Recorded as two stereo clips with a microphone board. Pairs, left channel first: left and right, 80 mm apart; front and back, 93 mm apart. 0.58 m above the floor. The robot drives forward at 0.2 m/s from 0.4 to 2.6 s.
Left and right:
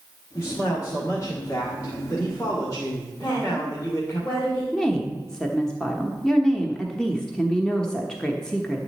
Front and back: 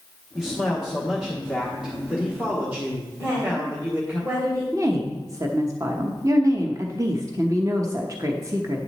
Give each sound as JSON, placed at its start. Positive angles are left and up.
{"t": 0.3, "sound": "a man speaking", "azimuth_deg": 90, "distance_m": 1.5}
{"t": 3.2, "sound": "a woman speaking", "azimuth_deg": 120, "distance_m": 3.5}
{"t": 4.7, "sound": "a woman speaking", "azimuth_deg": 165, "distance_m": 1.0}